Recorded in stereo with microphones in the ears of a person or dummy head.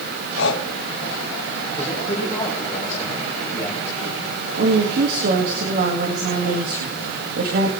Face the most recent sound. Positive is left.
turn(degrees=-50)  # may be behind; listen again after turning